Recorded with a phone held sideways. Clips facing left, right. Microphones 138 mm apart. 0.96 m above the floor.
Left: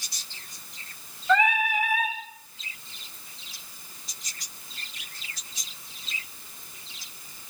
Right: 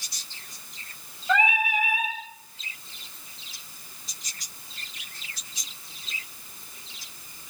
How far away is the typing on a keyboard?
I don't hear typing on a keyboard.